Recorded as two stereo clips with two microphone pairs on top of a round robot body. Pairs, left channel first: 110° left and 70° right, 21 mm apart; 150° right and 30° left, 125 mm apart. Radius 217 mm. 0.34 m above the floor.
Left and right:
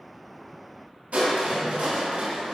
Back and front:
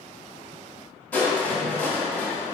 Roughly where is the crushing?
Right.